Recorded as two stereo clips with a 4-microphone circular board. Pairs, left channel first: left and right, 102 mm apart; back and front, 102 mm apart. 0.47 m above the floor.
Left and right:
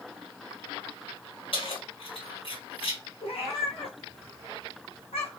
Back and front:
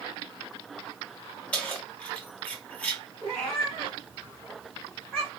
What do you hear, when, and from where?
1.5 s keys jangling: 105° left, 1.2 m
3.2 s a cat meowing: 95° left, 1.5 m